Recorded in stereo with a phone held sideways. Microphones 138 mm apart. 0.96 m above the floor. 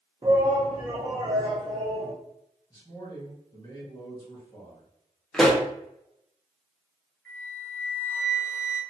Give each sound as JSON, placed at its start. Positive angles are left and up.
{"t": 0.2, "sound": "a shout", "side_deg": -35, "distance_m": 0.7}
{"t": 2.7, "sound": "a man speaking", "side_deg": 30, "distance_m": 1.8}
{"t": 5.3, "sound": "a pop", "side_deg": 5, "distance_m": 0.8}
{"t": 7.2, "sound": "a flute", "side_deg": 10, "distance_m": 1.3}